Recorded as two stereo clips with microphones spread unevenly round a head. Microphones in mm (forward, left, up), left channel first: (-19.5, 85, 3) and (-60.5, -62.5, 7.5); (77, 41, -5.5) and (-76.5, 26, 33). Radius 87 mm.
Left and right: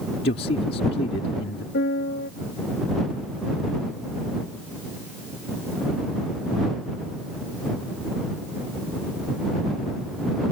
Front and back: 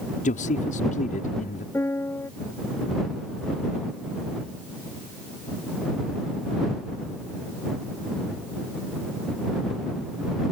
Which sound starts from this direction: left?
A piano, at 1.7 s.